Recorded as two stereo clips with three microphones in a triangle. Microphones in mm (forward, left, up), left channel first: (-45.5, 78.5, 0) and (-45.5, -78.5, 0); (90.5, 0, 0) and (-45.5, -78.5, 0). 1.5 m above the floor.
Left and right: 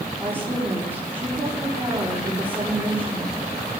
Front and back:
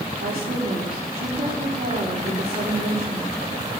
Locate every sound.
0.2 s a woman speaking: 170° right, 4.5 m